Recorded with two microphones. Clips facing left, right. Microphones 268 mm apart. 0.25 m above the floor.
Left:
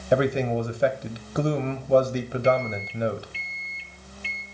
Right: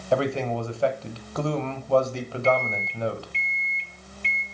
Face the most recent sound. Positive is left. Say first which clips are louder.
# even
turn(degrees=5)  # may be behind; listen again after turning